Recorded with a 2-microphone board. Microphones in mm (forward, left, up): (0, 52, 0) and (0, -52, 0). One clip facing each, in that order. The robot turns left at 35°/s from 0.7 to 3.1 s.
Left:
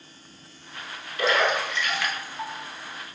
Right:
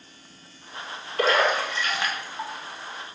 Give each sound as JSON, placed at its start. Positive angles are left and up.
{"t": 1.2, "sound": "a splash", "side_deg": -45, "distance_m": 1.0}